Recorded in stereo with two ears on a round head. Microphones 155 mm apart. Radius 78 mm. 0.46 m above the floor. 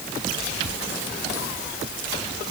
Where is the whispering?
I don't hear whispering.